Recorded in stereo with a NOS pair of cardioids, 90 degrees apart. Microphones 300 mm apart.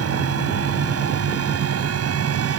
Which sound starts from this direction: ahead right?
A fan, at 0.0 s.